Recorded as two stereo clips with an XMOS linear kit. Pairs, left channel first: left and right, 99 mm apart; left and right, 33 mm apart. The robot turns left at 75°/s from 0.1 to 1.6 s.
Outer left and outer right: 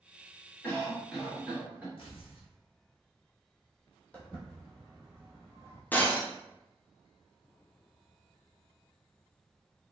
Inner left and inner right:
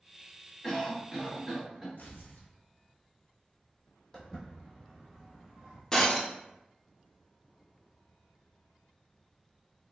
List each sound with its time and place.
0.6 s a cough: 15° left (ahead or behind), 1.0 m; by 1.9 s 15° right (ahead or behind), 1.0 m
2.0 s tearing paper: 60° left (ahead or behind), 0.7 m
4.1 s footsteps: 15° left (ahead or behind), 1.2 m; by 5.8 s 30° right (ahead or behind), 0.9 m
5.9 s breaking glass: 20° left (ahead or behind), 0.5 m